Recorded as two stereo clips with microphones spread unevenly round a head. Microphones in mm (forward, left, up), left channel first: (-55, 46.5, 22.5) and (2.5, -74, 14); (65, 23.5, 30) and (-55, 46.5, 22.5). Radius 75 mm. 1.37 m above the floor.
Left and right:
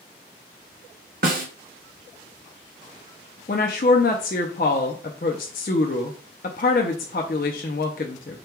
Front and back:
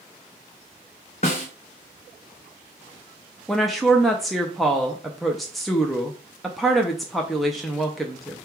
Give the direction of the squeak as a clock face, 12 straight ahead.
No squeak in this recording.